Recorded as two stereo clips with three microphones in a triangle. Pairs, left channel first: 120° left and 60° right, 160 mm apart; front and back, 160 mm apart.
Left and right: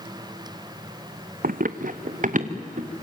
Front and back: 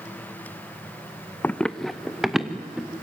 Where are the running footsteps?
80° right, 0.7 m; by 2.9 s 95° right, 2.5 m.